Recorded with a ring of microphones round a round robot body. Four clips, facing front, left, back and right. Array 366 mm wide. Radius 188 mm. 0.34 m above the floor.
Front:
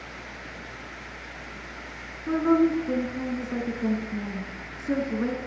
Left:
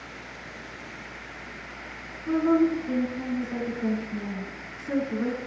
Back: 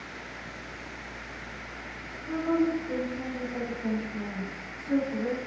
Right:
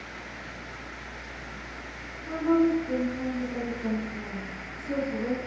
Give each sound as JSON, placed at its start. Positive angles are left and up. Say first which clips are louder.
{"t": 2.3, "sound": "a woman speaking", "louder": "left 2 dB, front 5 dB", "azimuth_deg": 25, "distance_m": 4.5}